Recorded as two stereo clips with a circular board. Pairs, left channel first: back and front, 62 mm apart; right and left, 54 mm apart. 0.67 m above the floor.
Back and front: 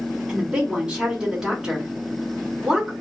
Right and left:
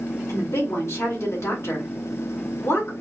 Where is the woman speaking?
80° right, 2 m.